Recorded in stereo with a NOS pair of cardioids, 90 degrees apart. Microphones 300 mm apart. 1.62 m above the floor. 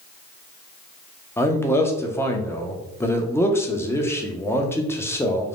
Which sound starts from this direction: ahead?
A man speaking, at 1.4 s.